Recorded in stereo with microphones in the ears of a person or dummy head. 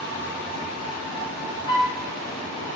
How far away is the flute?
About 1.2 m.